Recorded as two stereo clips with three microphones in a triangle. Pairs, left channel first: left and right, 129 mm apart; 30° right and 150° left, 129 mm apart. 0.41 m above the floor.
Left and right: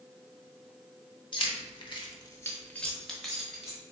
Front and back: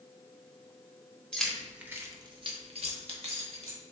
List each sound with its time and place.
1.3 s keys jangling: 50° left, 1.0 m; by 3.8 s 175° right, 1.6 m